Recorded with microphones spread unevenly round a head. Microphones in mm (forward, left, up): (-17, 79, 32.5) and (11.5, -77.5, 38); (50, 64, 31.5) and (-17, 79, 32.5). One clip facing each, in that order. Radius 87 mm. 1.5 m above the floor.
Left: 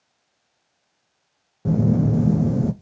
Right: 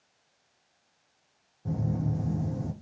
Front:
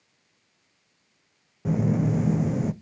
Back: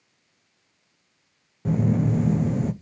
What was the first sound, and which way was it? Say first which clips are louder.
A phone buzzing: left 12 dB, back 1 dB; 75° left.